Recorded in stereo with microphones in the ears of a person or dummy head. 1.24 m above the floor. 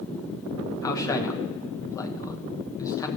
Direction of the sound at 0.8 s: 20° left (ahead or behind).